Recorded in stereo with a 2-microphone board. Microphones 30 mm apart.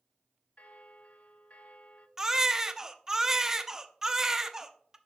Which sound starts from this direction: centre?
A baby crying, at 2.2 s.